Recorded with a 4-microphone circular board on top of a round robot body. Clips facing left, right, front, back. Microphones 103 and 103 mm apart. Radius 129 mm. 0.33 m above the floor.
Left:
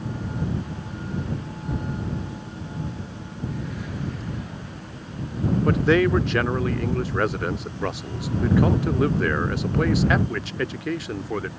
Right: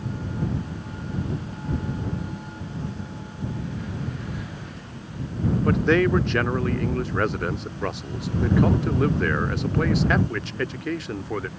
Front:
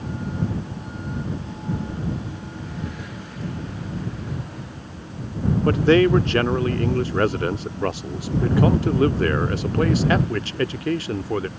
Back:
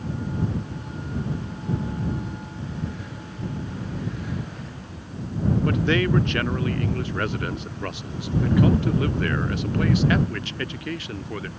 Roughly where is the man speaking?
Ahead.